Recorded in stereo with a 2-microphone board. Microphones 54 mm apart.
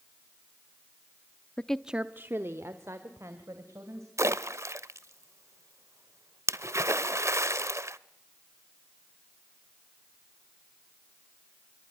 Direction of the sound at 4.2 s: 60° right (ahead or behind).